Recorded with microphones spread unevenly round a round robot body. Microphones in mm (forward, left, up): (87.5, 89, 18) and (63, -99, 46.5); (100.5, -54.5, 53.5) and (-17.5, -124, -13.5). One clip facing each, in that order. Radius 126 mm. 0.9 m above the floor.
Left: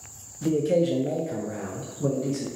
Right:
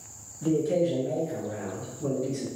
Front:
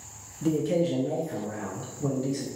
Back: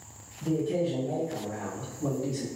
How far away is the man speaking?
About 0.6 m.